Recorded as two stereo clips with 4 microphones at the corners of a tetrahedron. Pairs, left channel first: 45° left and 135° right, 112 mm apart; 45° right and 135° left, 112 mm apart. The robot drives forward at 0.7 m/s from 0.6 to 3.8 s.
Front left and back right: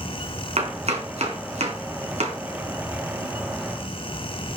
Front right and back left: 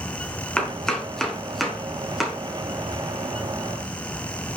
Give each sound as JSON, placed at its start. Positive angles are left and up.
{"t": 0.6, "sound": "chopping", "azimuth_deg": -125, "distance_m": 4.0}